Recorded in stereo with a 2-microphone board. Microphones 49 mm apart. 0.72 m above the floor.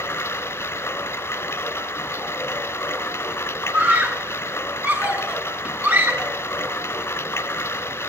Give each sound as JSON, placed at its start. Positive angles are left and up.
{"t": 0.0, "sound": "running water", "side_deg": 70, "distance_m": 1.4}
{"t": 3.7, "sound": "a scream", "side_deg": -40, "distance_m": 5.5}